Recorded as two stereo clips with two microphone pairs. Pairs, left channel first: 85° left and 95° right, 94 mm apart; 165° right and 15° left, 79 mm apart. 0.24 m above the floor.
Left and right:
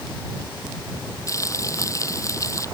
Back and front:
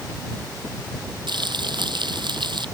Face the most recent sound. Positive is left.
turn(degrees=35)